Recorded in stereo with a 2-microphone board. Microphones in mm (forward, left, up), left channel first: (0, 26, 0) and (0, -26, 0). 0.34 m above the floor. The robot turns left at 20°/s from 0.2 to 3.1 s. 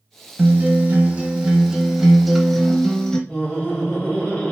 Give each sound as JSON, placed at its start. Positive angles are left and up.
{"t": 0.4, "sound": "a guitar", "azimuth_deg": -145, "distance_m": 0.6}
{"t": 3.3, "sound": "laughter", "side_deg": 15, "distance_m": 1.3}